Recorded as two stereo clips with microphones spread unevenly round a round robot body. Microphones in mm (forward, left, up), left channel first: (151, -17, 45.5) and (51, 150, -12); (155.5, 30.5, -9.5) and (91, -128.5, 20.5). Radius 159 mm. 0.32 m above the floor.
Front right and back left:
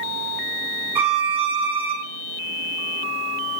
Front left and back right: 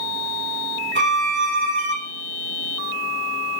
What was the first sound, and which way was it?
A violin, 160° right.